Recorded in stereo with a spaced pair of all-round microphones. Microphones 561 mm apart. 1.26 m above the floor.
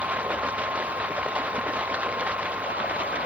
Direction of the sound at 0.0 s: Centre (ahead or behind).